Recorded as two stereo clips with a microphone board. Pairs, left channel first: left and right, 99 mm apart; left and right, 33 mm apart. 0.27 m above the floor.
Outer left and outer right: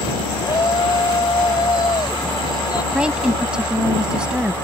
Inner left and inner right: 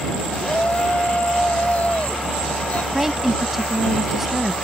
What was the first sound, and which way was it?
A shout, 45° left (ahead or behind).